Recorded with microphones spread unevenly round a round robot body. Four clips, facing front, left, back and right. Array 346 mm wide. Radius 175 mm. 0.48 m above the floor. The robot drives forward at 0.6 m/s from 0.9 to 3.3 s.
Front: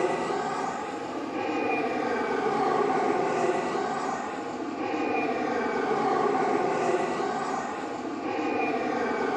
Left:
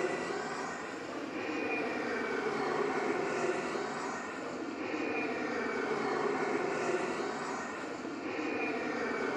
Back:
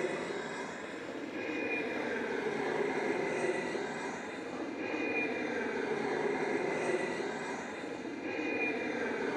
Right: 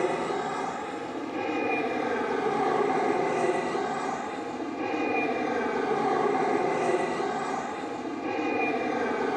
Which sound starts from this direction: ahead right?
An aircraft, at 0.0 s.